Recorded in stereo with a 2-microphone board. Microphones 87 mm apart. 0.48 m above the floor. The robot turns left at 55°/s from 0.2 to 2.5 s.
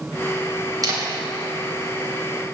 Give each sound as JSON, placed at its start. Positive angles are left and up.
{"t": 0.8, "sound": "a camera shutter", "side_deg": -50, "distance_m": 3.0}